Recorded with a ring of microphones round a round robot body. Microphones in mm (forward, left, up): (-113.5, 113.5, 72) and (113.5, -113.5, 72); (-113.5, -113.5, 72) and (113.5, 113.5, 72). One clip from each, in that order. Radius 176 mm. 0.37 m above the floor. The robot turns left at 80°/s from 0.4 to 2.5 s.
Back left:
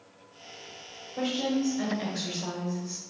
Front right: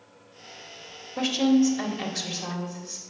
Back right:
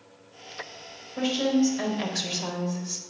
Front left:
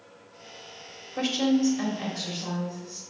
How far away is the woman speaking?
About 1.8 m.